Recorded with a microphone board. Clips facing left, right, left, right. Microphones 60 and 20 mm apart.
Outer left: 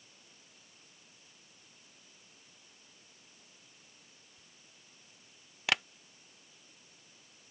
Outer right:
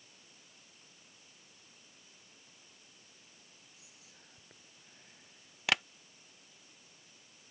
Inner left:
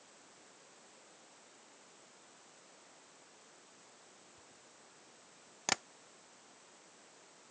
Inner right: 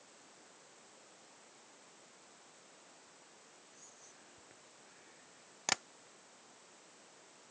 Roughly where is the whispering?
Right.